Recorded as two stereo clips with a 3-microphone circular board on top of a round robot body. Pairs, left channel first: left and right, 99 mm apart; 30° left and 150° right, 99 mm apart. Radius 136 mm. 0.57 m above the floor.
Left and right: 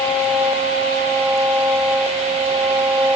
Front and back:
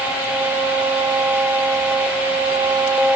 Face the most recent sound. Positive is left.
No sound to turn to.